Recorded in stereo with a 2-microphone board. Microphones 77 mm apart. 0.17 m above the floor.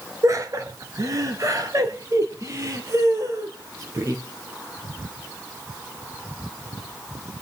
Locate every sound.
0.2 s laughter: 45° right (ahead or behind), 2.5 m; by 4.2 s 40° right (ahead or behind), 4.5 m